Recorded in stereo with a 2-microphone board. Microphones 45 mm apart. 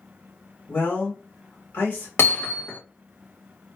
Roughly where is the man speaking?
Left.